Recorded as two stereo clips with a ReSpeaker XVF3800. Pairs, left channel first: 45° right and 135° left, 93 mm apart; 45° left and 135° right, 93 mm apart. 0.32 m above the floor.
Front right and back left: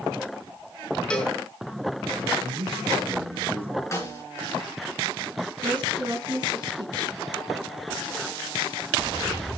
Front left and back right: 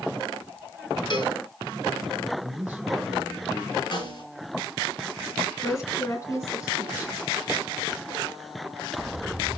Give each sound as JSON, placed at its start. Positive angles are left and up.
{"t": 1.1, "sound": "a cowbell", "azimuth_deg": 35, "distance_m": 2.5}
{"t": 2.4, "sound": "a man speaking", "azimuth_deg": 145, "distance_m": 4.0}
{"t": 3.9, "sound": "a snare drum", "azimuth_deg": 10, "distance_m": 4.5}
{"t": 5.6, "sound": "a woman speaking", "azimuth_deg": 100, "distance_m": 3.0}